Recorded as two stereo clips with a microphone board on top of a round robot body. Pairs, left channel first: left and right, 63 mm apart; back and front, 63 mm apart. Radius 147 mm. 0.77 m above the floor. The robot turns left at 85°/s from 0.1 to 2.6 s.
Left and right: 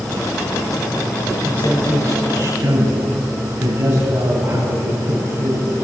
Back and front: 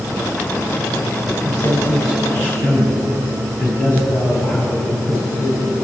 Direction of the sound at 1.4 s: 45° right.